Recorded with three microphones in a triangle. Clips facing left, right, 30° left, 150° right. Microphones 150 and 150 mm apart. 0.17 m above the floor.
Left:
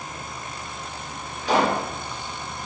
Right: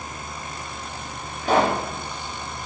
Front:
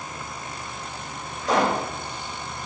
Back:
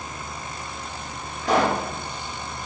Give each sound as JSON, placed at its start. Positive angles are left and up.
{"t": 1.4, "sound": "a pop", "azimuth_deg": -130, "distance_m": 4.0}